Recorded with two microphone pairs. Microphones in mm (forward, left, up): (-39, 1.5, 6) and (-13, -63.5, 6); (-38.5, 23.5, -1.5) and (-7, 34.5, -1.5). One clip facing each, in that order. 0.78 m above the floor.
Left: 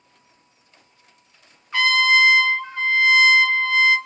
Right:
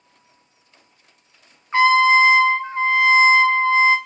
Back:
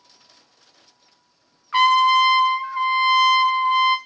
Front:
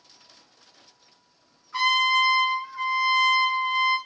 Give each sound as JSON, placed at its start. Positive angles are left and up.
{"t": 1.7, "sound": "a trumpet", "azimuth_deg": -130, "distance_m": 0.6}